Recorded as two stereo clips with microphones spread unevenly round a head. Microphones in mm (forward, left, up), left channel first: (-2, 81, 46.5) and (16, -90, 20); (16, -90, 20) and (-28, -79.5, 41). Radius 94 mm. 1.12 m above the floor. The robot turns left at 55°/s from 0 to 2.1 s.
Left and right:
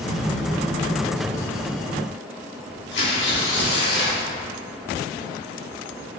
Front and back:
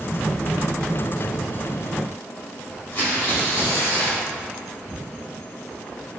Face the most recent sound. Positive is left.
turn(degrees=70)